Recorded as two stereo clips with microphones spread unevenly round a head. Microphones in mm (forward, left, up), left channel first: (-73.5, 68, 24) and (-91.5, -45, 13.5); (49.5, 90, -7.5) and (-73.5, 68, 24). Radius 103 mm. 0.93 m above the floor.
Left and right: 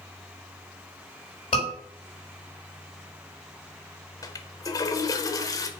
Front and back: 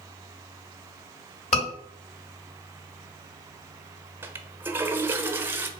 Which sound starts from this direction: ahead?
A scream, at 1.5 s.